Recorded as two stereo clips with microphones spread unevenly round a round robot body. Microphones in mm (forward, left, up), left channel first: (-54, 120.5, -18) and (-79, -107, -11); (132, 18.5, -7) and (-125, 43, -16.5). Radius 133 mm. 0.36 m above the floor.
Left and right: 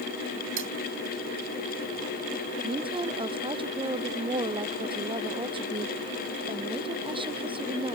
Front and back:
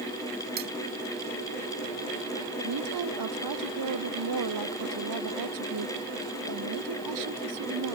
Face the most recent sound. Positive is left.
turn(degrees=-165)